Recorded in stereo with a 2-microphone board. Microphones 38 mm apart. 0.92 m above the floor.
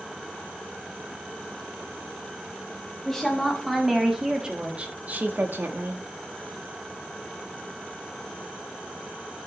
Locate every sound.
3.0 s a woman speaking: 5° left (ahead or behind), 1.9 m; by 6.0 s 75° right (ahead or behind), 1.3 m